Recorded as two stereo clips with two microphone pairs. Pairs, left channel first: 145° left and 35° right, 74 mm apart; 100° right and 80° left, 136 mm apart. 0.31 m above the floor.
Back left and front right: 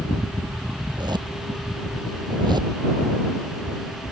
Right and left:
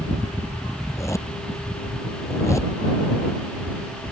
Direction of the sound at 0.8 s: 30° right.